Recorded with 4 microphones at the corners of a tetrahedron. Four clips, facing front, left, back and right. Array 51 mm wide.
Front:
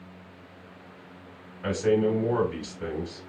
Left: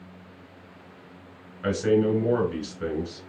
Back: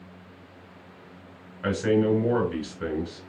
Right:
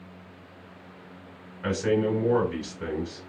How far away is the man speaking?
About 1.7 m.